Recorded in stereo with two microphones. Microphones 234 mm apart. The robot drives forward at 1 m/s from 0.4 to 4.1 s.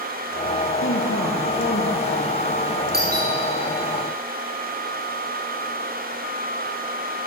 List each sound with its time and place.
0.8 s a woman speaking: 60° left (ahead or behind), 2.5 m; by 2.4 s 40° left (ahead or behind), 3 m
2.9 s a doorbell: 40° right (ahead or behind), 5.5 m